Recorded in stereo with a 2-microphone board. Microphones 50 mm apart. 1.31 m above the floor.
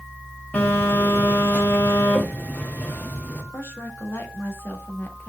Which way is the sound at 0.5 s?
35° left (ahead or behind).